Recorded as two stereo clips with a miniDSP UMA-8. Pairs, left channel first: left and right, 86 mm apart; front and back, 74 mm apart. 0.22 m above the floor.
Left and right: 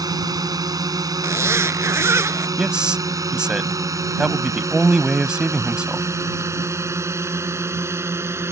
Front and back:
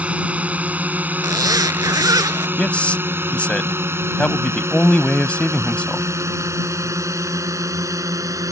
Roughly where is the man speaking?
Ahead right.